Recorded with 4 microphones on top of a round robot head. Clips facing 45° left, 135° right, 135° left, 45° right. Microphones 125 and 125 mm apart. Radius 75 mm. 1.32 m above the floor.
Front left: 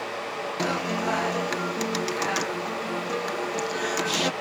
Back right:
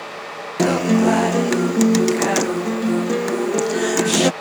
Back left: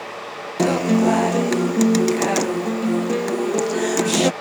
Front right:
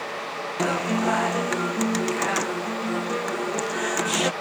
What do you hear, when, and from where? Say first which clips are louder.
0.6 s a guitar: back right 13 dB, back left 7 dB; 170° right